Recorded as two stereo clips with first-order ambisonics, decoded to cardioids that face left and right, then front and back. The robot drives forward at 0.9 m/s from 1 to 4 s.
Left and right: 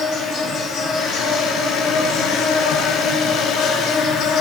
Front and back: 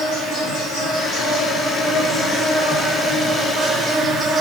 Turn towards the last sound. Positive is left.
turn(degrees=110)